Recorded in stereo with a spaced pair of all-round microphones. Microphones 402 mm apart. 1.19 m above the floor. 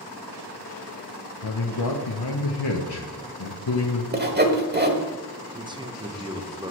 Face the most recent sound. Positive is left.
turn(degrees=-10)  # may be behind; listen again after turning